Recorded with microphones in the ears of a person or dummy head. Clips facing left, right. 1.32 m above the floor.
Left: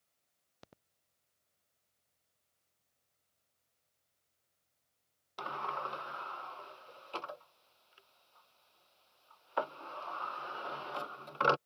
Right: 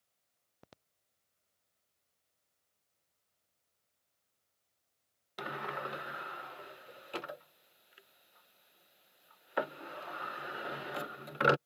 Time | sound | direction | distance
5.4 | a sliding door | 20° right (ahead or behind) | ?